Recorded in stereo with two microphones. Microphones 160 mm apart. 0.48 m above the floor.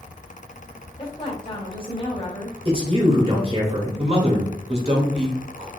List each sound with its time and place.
1.0 s a woman speaking: 35° left (ahead or behind), 1.4 m
2.6 s a man speaking: 35° right (ahead or behind), 1.7 m
4.0 s a man speaking: 35° right (ahead or behind), 1.4 m